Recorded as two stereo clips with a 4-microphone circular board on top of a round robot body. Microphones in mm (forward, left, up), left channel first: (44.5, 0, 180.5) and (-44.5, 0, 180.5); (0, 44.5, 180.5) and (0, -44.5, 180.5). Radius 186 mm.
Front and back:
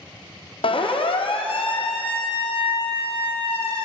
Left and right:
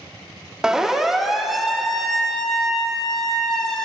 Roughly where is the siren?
Ahead.